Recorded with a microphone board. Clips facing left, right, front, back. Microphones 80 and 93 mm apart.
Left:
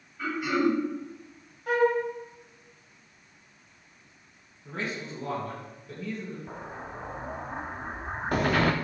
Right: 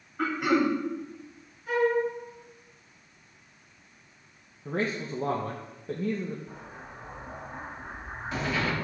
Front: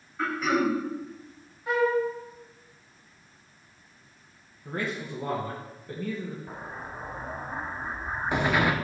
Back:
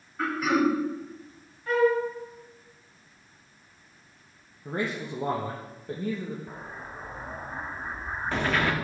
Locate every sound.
0.2 s throat clearing: 95° right, 1.4 m
1.7 s a flute: 75° left, 1.6 m
4.7 s a man speaking: 115° right, 0.7 m
6.5 s an explosion: 75° left, 0.5 m